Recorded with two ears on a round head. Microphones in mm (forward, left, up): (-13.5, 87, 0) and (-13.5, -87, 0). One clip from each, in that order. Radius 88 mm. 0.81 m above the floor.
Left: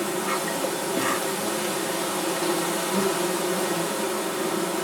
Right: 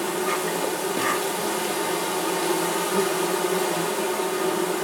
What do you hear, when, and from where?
0.0 s an insect: 15° right (ahead or behind), 2.0 m